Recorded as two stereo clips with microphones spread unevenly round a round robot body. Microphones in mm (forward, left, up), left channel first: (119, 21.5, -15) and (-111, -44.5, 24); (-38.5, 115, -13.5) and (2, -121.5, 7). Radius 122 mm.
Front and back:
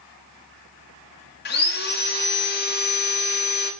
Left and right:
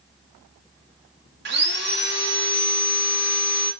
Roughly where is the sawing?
Ahead right.